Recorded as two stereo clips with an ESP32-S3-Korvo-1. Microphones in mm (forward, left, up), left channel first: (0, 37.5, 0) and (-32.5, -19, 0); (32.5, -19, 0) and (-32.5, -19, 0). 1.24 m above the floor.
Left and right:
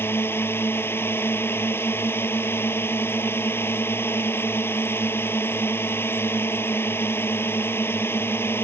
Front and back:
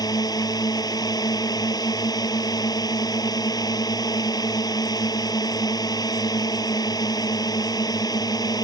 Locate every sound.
0.0 s a drone: 5° left